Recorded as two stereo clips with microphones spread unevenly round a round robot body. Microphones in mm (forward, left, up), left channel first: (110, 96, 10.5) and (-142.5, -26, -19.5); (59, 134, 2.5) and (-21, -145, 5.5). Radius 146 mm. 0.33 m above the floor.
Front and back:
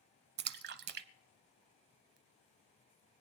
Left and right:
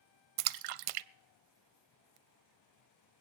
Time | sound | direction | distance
0.4 | a splash | 100° right | 0.5 m